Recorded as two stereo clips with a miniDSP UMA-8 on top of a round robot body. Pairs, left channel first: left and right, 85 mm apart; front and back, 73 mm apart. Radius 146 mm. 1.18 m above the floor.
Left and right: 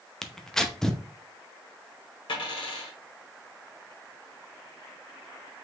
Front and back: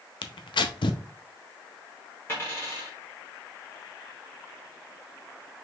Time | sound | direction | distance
0.2 | tearing paper | 5° left | 0.6 m
2.3 | a dropped coin | 60° left | 1.3 m